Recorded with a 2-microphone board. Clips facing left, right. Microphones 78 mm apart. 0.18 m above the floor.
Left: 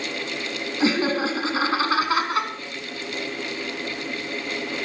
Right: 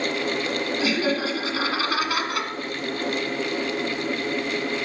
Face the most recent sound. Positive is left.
turn(degrees=30)  # may be behind; listen again after turning